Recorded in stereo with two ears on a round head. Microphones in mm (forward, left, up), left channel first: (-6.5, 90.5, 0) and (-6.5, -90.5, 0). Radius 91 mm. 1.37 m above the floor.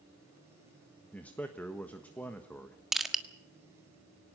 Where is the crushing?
Centre (ahead or behind), 1.5 m.